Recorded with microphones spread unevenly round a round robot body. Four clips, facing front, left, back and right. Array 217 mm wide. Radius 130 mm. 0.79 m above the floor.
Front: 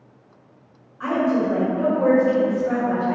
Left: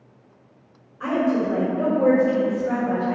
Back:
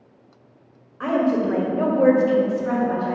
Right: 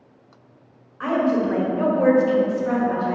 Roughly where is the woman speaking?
Behind.